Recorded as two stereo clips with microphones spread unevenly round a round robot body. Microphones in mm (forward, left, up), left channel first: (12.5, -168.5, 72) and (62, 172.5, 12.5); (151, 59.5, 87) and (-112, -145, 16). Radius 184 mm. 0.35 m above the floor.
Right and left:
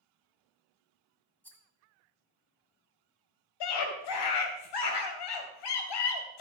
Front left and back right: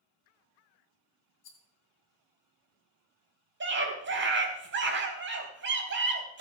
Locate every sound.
1.4 s a rattle: 10° right, 2.5 m
3.6 s a scream: 95° right, 3 m